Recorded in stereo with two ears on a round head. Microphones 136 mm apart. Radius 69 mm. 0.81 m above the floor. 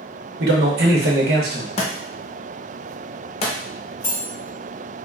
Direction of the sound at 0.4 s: 70° right (ahead or behind).